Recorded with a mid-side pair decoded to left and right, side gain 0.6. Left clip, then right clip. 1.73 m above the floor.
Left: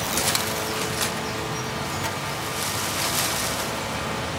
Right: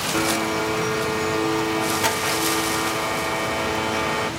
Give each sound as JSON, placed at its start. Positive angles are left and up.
{"t": 0.1, "sound": "a blender", "azimuth_deg": -45, "distance_m": 2.5}